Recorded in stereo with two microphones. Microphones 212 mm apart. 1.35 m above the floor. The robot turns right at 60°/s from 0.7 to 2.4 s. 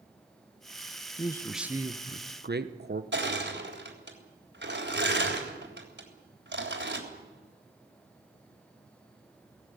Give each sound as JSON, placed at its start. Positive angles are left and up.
{"t": 1.2, "sound": "a man speaking", "azimuth_deg": 160, "distance_m": 1.0}
{"t": 3.1, "sound": "crushing", "side_deg": -60, "distance_m": 3.5}